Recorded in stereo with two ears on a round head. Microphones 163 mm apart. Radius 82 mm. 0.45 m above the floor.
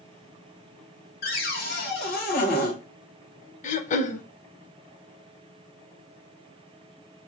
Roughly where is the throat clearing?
Left.